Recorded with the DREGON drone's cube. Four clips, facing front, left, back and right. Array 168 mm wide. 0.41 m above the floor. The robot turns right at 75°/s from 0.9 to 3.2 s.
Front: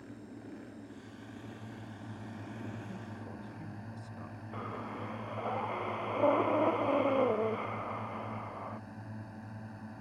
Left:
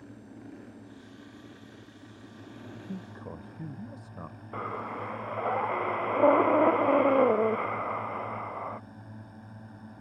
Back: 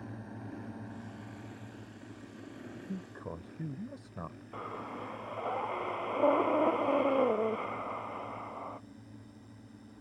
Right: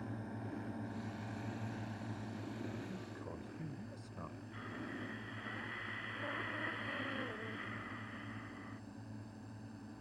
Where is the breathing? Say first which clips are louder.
Left 13 dB, front 1 dB; 95° left.